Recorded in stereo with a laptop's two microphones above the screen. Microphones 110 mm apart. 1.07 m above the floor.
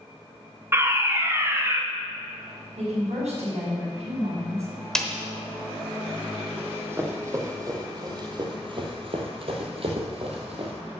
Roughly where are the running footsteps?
Centre.